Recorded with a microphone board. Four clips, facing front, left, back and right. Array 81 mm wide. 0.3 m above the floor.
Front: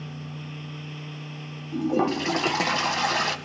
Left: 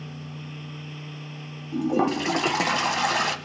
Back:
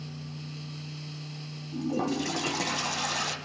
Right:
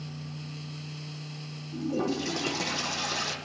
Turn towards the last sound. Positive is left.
turn(degrees=55)